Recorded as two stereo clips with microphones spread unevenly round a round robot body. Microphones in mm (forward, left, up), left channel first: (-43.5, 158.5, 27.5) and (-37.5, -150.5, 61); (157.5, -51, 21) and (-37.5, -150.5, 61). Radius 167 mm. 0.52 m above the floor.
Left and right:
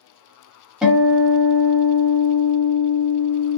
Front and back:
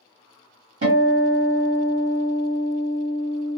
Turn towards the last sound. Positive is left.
turn(degrees=180)